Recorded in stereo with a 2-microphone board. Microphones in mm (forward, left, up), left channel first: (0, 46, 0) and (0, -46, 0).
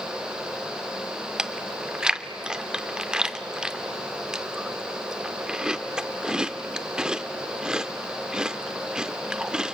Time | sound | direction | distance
1.4 | chewing | 10° right (ahead or behind) | 0.6 m